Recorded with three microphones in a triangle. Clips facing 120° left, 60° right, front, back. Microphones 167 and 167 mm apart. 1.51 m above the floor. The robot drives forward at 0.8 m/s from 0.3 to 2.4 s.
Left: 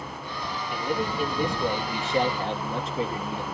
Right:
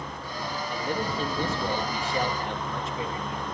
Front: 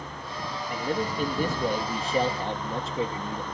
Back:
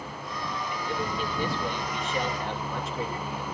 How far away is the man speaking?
About 2 m.